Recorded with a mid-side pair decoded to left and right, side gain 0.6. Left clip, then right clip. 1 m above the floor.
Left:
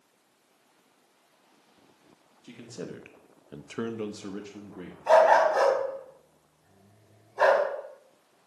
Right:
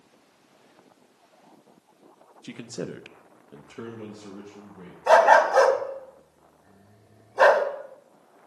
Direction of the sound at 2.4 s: 50° right.